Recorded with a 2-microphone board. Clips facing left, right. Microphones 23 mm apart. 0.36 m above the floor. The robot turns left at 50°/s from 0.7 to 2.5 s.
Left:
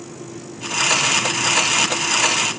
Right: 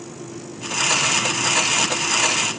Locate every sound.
Only background noise.